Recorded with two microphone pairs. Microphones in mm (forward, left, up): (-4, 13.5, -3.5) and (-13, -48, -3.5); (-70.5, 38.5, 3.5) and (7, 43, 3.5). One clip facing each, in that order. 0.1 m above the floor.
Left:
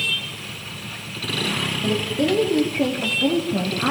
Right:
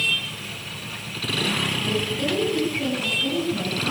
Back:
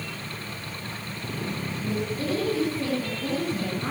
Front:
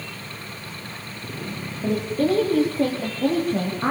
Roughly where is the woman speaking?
Ahead left.